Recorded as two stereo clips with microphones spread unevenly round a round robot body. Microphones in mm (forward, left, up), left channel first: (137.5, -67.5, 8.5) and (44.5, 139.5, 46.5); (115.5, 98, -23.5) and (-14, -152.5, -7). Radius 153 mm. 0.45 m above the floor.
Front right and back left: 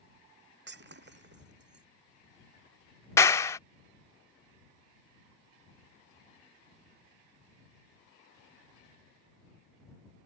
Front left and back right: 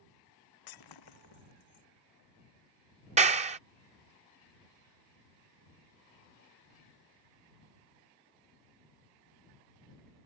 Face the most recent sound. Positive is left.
turn(degrees=-85)